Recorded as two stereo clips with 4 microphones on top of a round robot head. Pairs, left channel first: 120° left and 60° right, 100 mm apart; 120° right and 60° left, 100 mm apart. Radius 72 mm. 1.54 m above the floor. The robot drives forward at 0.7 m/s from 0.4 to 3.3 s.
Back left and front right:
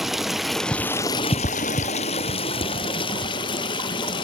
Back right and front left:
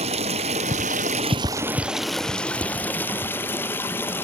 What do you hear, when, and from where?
0.0 s running water: 30° left, 0.8 m; by 4.2 s 165° left, 1.5 m